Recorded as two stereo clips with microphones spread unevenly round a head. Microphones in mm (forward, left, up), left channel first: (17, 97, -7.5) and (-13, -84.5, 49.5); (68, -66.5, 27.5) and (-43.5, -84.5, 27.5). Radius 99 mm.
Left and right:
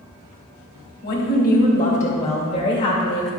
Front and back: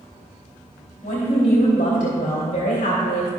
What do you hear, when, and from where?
1.0 s a woman speaking: 45° left, 3 m; by 3.3 s 10° left, 2.5 m